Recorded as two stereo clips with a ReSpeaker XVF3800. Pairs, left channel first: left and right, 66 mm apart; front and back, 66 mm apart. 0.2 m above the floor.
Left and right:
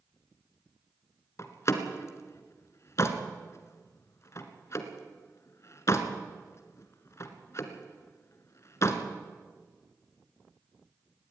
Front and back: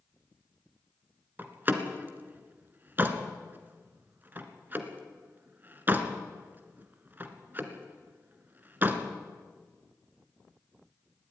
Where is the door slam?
125° left, 1.8 m.